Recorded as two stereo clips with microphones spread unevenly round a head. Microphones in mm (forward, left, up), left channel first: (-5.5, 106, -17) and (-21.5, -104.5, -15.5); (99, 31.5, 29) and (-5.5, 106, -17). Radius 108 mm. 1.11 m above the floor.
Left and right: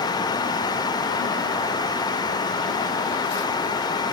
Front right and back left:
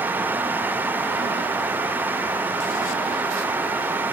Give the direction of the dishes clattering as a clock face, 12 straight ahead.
I don't hear dishes clattering.